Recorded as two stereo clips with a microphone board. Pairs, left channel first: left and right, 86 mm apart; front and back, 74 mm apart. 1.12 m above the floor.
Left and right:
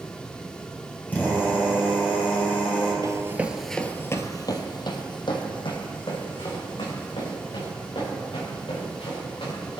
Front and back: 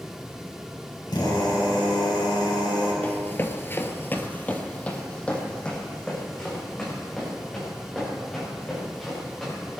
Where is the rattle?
I don't hear a rattle.